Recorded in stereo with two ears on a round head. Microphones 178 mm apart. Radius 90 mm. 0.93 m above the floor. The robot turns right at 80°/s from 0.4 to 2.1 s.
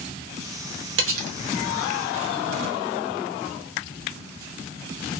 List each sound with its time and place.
1.0 s cutlery clinking: 65° right (ahead or behind), 0.6 m; by 1.4 s 80° right, 0.6 m